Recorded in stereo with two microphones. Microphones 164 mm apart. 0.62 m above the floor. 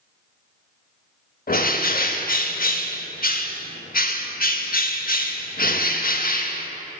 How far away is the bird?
About 0.5 m.